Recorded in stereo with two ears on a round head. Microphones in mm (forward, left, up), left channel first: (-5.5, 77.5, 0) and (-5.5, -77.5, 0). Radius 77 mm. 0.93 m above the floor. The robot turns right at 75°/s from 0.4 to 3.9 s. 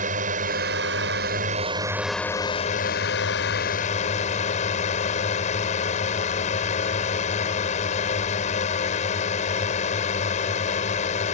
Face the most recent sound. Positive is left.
turn(degrees=135)